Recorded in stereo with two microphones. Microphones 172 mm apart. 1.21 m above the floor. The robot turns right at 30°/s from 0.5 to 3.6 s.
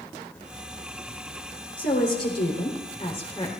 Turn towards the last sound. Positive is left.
turn(degrees=160)